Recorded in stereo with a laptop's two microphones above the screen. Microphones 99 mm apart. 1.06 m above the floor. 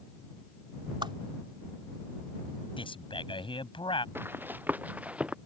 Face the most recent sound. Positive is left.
turn(degrees=-10)  # may be behind; listen again after turning